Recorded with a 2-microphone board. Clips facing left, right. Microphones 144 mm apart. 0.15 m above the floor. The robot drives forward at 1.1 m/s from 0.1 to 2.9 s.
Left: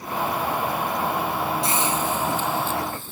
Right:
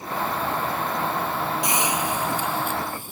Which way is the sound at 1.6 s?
15° right (ahead or behind).